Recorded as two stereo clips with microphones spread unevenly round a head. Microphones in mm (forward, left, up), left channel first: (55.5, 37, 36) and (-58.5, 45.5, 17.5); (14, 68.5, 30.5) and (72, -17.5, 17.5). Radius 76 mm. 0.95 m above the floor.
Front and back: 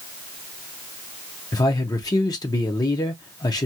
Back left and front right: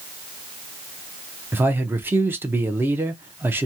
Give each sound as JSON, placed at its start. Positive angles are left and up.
{"t": 1.5, "sound": "a man speaking", "azimuth_deg": -40, "distance_m": 0.9}